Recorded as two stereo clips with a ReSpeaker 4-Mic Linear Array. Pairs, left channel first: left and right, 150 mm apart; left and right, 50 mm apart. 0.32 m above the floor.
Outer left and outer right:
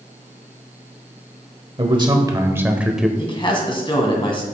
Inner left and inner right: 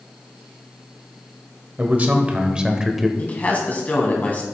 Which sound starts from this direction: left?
A man speaking, at 3.2 s.